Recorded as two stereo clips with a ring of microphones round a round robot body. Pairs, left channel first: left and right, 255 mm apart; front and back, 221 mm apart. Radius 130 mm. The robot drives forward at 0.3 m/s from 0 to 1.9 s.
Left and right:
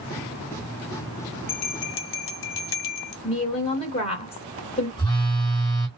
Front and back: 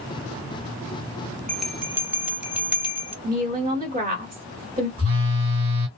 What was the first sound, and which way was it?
A bell, 85° left.